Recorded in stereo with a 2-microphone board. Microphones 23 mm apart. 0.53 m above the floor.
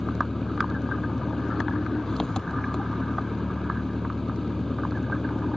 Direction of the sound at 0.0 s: 25° left (ahead or behind).